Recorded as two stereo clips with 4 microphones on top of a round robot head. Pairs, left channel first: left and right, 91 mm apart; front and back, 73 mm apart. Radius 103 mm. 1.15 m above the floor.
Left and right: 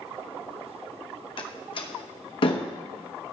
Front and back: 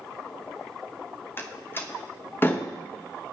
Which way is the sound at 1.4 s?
60° left.